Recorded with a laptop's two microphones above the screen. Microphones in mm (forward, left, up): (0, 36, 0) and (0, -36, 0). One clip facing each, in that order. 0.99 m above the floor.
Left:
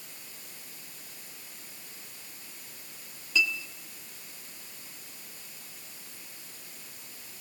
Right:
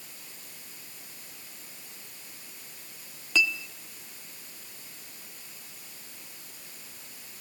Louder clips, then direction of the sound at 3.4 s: Right 2 dB; 75° right (ahead or behind).